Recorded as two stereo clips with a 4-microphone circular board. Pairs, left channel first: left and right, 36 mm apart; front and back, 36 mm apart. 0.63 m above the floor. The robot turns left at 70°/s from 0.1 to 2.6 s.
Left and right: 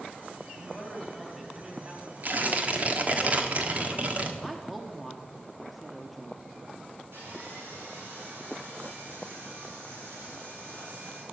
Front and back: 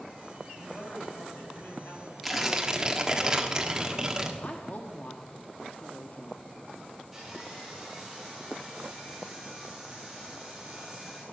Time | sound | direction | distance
0.5 | a man speaking | 65° left | 3.5 m
2.2 | tearing paper | 90° right | 1.4 m
4.4 | a woman speaking | straight ahead | 1.3 m
7.1 | sawing | 90° right | 7 m